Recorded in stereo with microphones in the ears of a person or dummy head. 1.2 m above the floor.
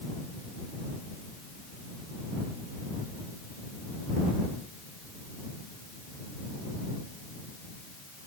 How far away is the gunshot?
I don't hear a gunshot.